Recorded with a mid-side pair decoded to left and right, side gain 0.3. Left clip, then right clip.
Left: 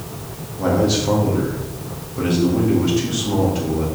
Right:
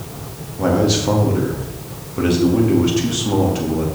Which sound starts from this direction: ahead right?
A man speaking, at 0.6 s.